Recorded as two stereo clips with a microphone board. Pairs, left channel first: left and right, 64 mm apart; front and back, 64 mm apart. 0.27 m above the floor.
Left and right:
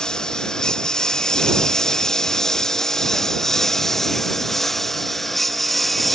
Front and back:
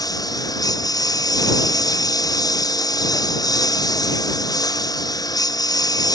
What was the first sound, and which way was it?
A lawn mower, 15° left.